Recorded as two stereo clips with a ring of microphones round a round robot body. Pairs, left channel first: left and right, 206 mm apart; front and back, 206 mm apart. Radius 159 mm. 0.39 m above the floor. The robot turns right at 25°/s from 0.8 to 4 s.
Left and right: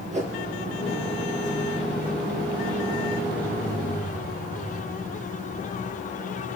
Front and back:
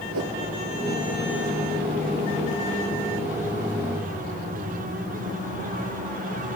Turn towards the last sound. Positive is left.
turn(degrees=-65)